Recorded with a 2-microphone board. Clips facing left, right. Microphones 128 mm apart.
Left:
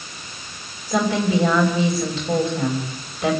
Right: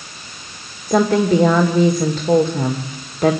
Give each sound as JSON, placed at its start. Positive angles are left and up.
{"t": 0.9, "sound": "a woman speaking", "side_deg": -50, "distance_m": 2.5}